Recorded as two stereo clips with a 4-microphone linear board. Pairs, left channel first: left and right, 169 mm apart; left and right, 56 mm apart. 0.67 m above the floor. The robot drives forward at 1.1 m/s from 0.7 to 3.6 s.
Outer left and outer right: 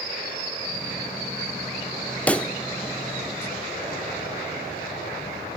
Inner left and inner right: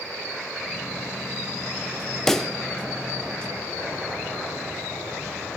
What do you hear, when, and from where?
2.3 s a pop: 10° left (ahead or behind), 0.6 m; by 2.5 s 5° left (ahead or behind), 0.9 m